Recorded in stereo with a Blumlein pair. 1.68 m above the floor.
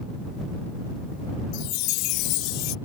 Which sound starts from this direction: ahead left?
A chime, at 1.5 s.